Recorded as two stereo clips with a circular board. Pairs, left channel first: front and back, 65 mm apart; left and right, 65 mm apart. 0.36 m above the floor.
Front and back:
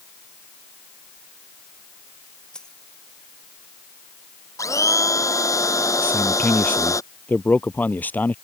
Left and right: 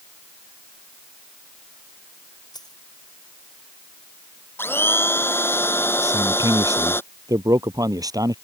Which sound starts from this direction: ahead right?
A man speaking, at 6.0 s.